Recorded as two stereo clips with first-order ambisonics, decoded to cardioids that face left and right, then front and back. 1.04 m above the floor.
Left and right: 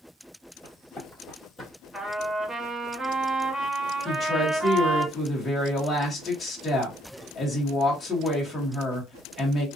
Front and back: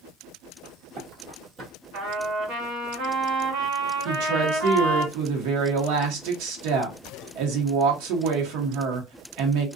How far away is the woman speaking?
About 1.0 m.